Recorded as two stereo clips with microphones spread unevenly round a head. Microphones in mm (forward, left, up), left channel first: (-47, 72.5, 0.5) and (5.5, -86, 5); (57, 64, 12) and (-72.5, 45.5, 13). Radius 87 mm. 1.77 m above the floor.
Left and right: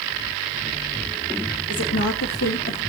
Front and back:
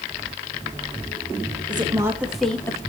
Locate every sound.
1.7 s a woman speaking: 130° left, 1.3 m; by 2.8 s 75° left, 1.1 m